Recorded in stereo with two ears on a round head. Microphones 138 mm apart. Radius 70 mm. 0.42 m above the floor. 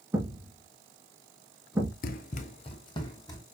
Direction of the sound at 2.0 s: 55° left (ahead or behind).